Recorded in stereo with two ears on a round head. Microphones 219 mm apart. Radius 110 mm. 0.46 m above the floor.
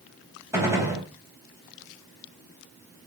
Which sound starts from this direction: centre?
A gunshot, at 0.5 s.